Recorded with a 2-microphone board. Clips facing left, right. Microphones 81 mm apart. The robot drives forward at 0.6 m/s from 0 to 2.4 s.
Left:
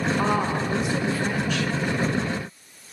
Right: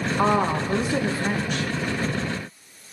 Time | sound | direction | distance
0.2 | a woman speaking | 25° right (ahead or behind) | 2 m